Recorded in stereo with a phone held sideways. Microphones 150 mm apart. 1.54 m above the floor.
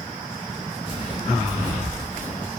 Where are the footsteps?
35° left (ahead or behind), 1.8 m; by 2.5 s 10° left (ahead or behind), 1.6 m.